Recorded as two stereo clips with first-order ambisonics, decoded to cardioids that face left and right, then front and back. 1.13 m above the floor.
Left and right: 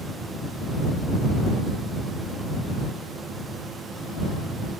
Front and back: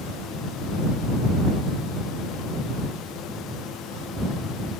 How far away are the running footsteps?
No running footsteps in this recording.